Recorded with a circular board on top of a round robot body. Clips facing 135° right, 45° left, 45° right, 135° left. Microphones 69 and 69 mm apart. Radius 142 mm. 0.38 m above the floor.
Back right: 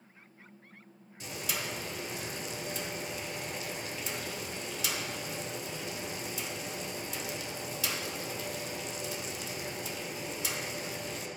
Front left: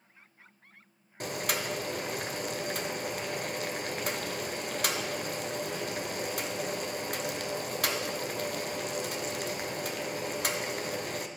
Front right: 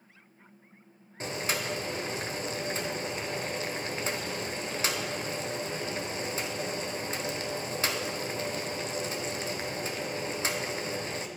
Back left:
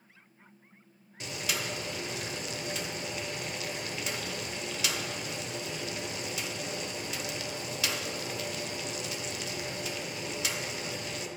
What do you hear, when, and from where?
1.2 s boiling: 10° left, 0.8 m